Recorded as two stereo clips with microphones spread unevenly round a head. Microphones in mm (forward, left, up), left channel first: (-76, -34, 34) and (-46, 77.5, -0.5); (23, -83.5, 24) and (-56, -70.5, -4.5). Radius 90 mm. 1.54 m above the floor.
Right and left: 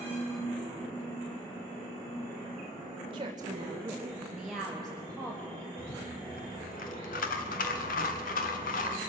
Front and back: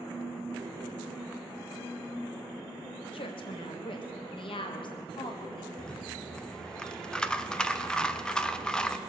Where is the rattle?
90° right, 1.0 m.